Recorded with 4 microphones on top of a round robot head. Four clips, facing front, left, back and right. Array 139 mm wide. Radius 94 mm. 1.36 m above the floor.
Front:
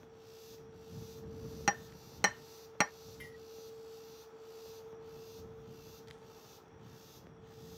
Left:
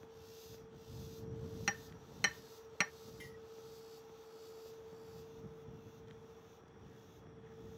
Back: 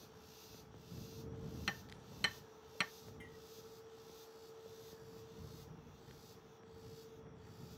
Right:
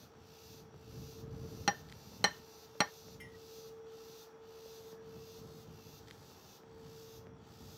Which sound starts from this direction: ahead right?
Hammering, at 1.7 s.